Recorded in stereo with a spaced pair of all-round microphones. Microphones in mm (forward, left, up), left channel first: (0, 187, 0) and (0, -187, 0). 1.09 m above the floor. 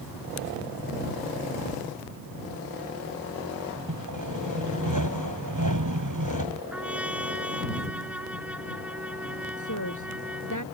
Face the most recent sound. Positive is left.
turn(degrees=50)  # may be behind; listen again after turning